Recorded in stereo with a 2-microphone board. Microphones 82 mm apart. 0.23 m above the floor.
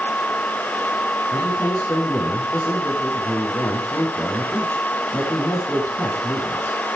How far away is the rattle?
No rattle in this recording.